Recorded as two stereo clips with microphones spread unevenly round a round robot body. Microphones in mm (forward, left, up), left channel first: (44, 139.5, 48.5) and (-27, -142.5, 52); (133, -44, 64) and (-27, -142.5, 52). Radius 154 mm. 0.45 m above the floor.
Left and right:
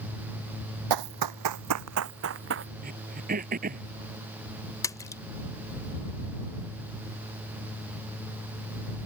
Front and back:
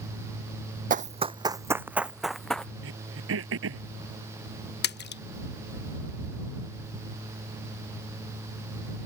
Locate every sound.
0.9 s running footsteps: 105° right; by 2.7 s 55° right
2.8 s throat clearing: 165° right
4.8 s a splash: 5° right